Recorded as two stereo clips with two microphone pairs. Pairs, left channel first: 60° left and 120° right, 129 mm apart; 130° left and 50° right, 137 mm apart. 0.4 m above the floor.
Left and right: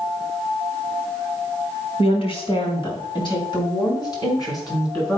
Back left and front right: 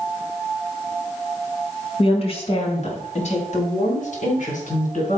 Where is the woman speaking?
95° left, 2 m; by 5.2 s 120° left, 4 m.